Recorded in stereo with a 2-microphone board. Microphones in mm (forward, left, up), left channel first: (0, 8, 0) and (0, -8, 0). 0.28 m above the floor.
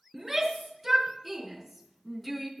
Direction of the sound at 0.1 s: 10° right (ahead or behind).